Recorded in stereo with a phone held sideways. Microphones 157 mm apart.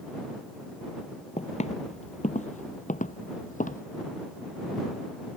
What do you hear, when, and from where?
1.4 s footsteps: 50° left (ahead or behind); by 3.8 s 60° left (ahead or behind)